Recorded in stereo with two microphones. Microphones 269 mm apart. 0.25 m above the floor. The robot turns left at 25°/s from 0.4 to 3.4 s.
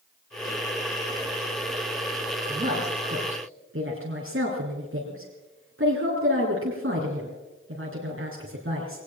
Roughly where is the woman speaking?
Right.